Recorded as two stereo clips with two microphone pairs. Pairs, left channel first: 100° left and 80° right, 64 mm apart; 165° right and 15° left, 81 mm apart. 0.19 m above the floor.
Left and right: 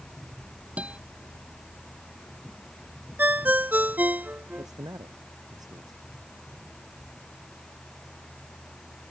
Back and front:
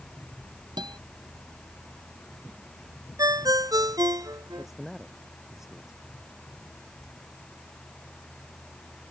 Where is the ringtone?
20° right.